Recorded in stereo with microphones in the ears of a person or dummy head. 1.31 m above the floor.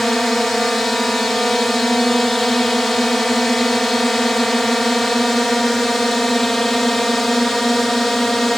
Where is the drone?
5° left (ahead or behind).